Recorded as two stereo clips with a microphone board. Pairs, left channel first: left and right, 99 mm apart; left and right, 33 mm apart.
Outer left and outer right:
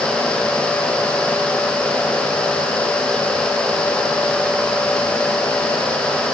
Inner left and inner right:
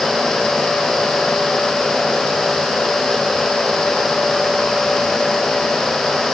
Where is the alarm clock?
No alarm clock in this recording.